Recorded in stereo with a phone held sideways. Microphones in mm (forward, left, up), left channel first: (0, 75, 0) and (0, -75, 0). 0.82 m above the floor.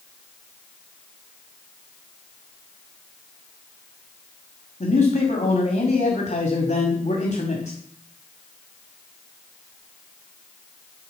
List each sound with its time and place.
4.8 s a man speaking: 60° left (ahead or behind), 2 m